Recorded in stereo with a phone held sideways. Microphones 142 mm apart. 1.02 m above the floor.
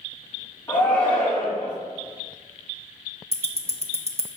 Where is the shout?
25° left (ahead or behind), 1.0 m.